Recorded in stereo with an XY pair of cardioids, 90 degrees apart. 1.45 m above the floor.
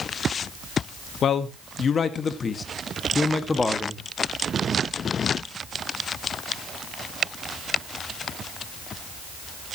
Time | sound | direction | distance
1.2 | a man speaking | 65° left | 1.8 m